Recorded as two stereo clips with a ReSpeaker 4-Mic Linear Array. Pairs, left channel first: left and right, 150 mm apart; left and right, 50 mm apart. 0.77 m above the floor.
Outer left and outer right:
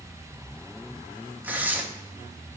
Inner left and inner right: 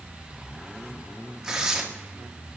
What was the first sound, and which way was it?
Tearing paper, 10° right (ahead or behind).